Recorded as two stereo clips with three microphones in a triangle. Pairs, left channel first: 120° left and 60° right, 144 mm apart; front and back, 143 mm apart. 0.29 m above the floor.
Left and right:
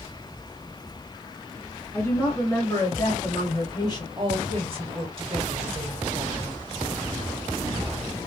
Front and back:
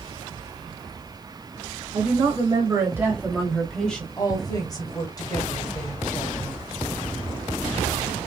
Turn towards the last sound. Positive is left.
turn(degrees=-50)